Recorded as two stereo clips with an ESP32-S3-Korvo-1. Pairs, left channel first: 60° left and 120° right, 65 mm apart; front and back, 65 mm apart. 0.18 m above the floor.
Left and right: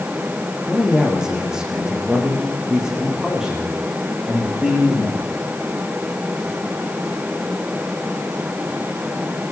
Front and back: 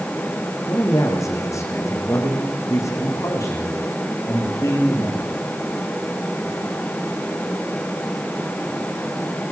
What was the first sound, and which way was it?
A man speaking, 40° right.